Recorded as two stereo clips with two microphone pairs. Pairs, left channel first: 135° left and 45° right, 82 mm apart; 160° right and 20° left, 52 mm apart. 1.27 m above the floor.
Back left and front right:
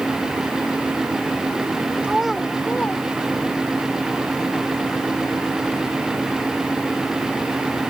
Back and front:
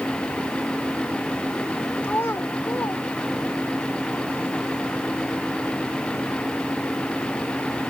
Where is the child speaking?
120° right; by 3.8 s 170° right.